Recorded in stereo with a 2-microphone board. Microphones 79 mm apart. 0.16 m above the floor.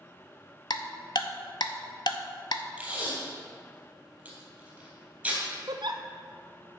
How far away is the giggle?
About 0.8 m.